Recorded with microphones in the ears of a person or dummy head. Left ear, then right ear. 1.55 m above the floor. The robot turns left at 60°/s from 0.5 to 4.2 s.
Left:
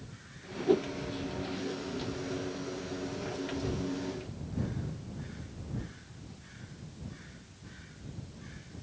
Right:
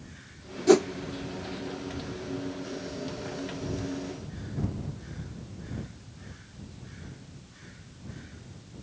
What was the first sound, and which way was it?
A whoosh, 60° right (ahead or behind).